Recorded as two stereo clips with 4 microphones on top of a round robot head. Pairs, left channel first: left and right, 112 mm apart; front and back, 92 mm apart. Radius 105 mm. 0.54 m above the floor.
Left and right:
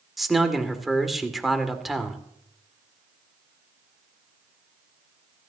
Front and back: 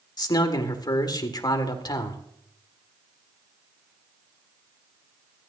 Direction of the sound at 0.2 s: Straight ahead.